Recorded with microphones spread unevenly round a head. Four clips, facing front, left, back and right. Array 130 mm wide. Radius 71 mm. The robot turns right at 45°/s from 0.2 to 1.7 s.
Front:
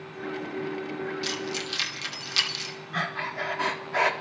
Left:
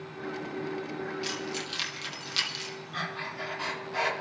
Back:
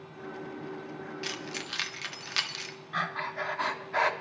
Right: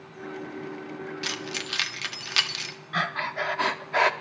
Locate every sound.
1.2 s keys jangling: 115° right, 0.9 m; by 2.8 s 95° right, 0.9 m
2.9 s breathing: 60° right, 0.9 m